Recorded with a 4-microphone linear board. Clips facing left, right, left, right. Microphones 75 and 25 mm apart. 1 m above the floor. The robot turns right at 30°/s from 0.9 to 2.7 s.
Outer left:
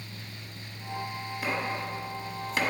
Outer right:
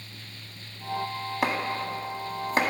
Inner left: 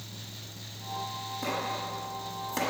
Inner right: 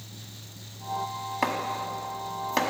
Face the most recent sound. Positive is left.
turn(degrees=-35)  # may be behind; listen again after turning